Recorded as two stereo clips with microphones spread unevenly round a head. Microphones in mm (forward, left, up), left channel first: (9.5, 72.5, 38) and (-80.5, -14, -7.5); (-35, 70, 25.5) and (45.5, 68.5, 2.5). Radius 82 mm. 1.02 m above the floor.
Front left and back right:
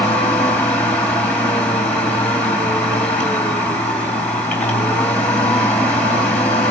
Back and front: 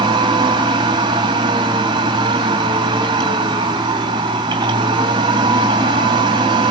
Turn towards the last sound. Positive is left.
turn(degrees=-45)